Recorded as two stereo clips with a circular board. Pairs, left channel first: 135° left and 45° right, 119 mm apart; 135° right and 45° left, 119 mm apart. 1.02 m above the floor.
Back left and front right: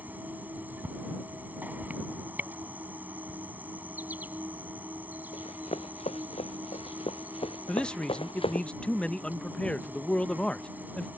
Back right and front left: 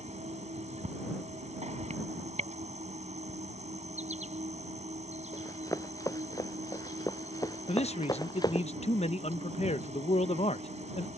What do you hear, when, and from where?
0.0 s an insect: 30° left
5.3 s running footsteps: 165° left; by 8.7 s 170° left
7.7 s a man speaking: 145° right